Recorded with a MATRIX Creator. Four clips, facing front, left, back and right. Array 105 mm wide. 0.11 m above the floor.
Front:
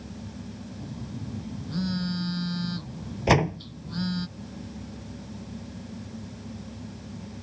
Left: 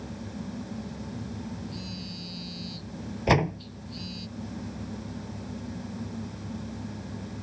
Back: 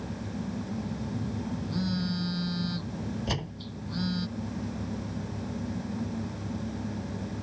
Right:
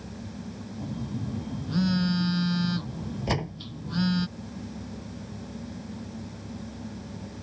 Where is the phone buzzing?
85° right.